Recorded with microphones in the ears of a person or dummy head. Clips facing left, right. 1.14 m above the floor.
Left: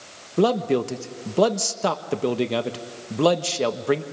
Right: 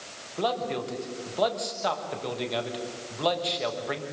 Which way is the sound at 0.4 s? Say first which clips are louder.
Left 9 dB; 50° left (ahead or behind).